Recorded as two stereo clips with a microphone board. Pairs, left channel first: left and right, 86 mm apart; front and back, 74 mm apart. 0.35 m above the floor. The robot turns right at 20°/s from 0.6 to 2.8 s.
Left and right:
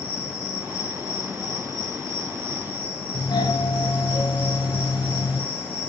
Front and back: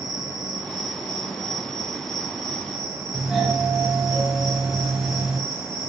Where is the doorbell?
95° left, 3 m.